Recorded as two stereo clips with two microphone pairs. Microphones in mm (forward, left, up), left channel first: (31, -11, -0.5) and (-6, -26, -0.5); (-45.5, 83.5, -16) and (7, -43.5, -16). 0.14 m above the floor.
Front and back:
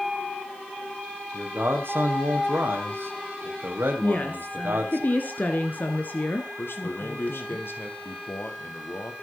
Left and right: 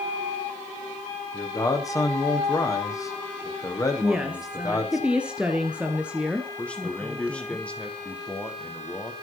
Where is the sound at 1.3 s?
Straight behind, 4.5 m.